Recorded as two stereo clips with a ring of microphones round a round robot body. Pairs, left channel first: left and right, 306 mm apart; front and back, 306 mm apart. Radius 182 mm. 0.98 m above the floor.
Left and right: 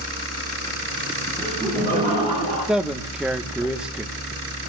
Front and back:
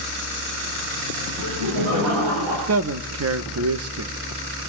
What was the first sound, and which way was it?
Laughter, 170° left.